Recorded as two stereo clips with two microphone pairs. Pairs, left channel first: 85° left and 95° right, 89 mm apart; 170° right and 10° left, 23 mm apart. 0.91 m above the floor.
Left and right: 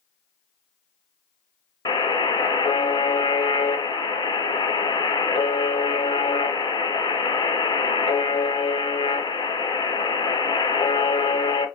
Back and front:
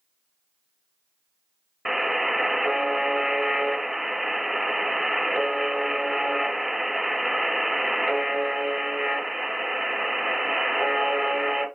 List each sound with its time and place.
1.9 s a buzzer: 90° left, 1.3 m